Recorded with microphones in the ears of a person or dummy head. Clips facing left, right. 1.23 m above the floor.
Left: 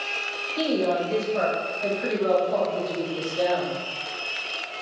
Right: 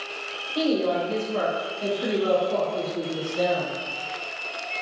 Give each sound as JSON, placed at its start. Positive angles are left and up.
{"t": 0.6, "sound": "a woman speaking", "side_deg": -45, "distance_m": 0.9}